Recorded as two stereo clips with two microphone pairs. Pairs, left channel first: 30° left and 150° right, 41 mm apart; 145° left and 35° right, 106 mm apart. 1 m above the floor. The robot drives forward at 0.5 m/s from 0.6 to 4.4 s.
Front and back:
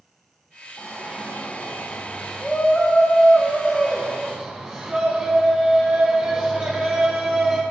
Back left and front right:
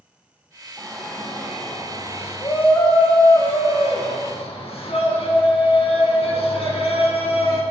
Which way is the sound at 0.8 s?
40° left.